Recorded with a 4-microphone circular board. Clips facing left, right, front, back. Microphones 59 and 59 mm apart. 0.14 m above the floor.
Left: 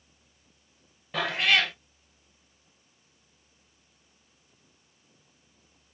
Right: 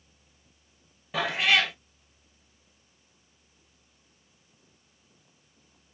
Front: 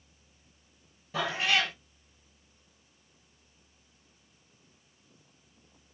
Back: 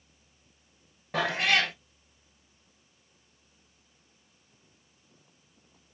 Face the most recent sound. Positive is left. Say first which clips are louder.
# even, back 3 dB
turn(degrees=180)